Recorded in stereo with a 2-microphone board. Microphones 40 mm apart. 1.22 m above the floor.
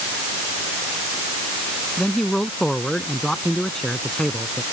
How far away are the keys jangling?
I don't hear keys jangling.